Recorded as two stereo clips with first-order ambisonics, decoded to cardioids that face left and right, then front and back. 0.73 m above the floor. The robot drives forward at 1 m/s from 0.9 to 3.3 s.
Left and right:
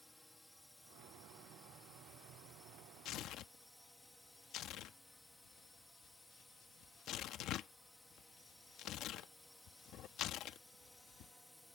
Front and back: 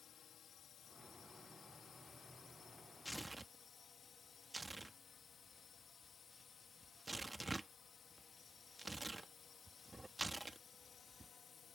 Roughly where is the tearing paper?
Left.